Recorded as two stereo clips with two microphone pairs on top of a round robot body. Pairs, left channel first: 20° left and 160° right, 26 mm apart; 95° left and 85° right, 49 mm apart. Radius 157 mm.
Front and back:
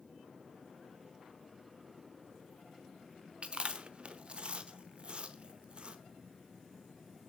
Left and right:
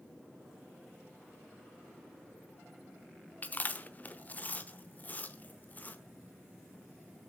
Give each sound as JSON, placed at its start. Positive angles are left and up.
{"t": 3.4, "sound": "chewing", "azimuth_deg": 150, "distance_m": 0.9}